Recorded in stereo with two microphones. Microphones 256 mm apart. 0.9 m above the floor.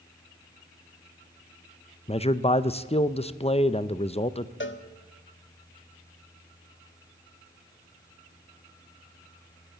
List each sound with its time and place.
2.1 s a man speaking: 25° left (ahead or behind), 0.6 m
4.6 s a cowbell: 50° left (ahead or behind), 1.1 m